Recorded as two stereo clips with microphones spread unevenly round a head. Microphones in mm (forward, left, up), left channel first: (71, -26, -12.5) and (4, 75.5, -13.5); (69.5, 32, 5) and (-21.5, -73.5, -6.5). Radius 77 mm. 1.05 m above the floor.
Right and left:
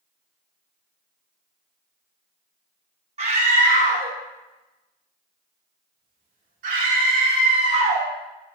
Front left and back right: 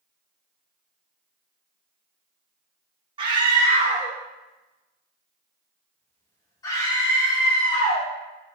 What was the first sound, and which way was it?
A scream, 175° left.